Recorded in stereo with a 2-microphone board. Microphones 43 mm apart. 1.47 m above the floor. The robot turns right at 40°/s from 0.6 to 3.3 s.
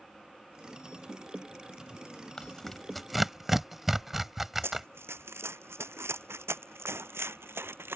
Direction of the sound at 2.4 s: 15° left (ahead or behind).